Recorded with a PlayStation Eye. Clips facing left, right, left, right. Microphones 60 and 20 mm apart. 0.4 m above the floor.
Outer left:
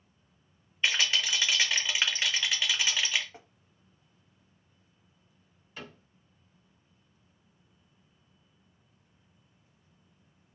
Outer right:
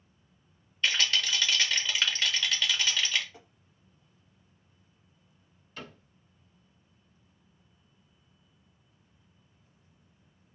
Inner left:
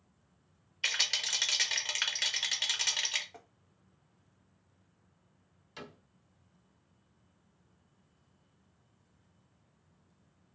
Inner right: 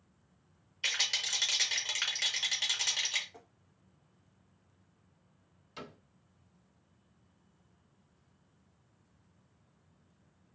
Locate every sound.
0.8 s a rattle: 15° left (ahead or behind), 0.6 m
3.3 s tapping: 30° left (ahead or behind), 0.6 m
5.8 s a cupboard door: 10° left (ahead or behind), 1.6 m